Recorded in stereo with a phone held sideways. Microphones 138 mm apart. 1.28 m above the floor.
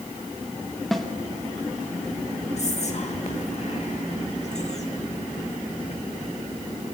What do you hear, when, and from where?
0.9 s a snare drum: centre (ahead or behind), 2 m
2.6 s whispering: 55° left (ahead or behind), 2.5 m